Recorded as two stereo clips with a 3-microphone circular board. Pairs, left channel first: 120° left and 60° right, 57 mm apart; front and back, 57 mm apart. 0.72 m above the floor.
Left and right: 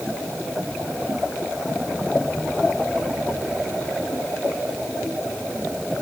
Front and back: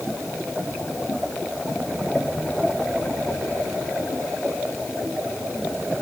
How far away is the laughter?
I don't hear laughter.